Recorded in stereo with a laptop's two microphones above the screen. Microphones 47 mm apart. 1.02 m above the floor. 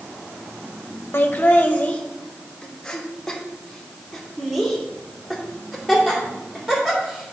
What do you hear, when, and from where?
1.1 s laughter: 50° left (ahead or behind), 1.0 m; by 7.3 s 10° right (ahead or behind), 3.5 m